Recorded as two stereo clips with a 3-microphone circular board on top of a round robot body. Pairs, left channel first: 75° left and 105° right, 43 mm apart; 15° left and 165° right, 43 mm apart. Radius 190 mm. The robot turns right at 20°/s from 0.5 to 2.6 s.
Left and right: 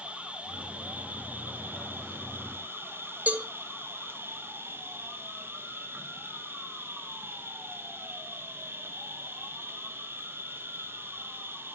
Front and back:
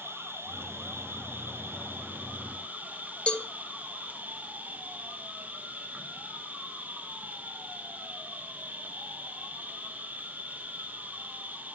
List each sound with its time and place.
0.0 s an insect: 165° right, 3 m; by 11.8 s 120° right, 3 m
3.3 s a cowbell: 50° right, 1.6 m